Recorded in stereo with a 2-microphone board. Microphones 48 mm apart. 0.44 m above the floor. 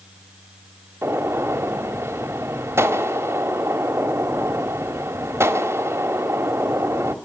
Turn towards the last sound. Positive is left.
turn(degrees=-65)  # may be behind; listen again after turning